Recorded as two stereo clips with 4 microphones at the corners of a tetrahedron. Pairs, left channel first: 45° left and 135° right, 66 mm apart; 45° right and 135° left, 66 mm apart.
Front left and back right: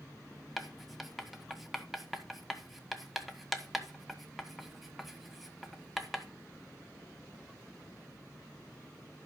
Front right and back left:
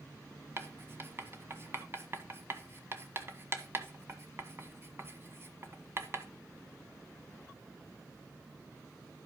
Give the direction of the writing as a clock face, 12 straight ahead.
7 o'clock.